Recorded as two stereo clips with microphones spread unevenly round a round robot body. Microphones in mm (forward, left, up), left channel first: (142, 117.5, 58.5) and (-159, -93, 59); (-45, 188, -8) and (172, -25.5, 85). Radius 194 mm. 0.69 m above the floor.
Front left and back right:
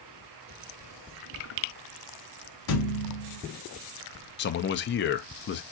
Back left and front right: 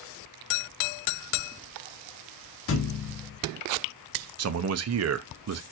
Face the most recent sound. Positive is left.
turn(degrees=-5)